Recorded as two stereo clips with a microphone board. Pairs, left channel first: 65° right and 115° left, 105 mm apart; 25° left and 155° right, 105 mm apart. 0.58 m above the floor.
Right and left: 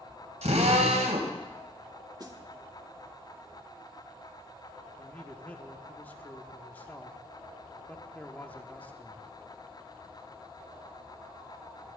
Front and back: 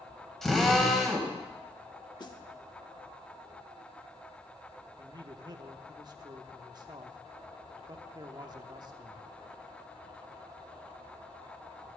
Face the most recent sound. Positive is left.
turn(degrees=-135)